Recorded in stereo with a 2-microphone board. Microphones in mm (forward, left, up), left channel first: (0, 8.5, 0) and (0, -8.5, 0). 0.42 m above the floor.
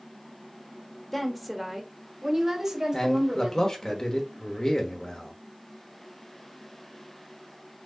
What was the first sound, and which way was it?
A woman speaking, 10° left (ahead or behind).